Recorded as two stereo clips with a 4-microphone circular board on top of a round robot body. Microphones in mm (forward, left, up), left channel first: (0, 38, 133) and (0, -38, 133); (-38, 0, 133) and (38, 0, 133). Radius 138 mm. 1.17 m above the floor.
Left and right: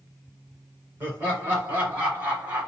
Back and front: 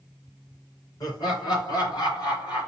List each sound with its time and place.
1.0 s laughter: 150° right, 4.5 m; by 2.7 s 160° right, 3 m